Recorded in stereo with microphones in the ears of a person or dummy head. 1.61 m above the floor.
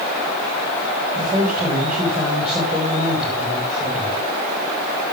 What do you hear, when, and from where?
1.1 s a man speaking: 10° right (ahead or behind), 5.5 m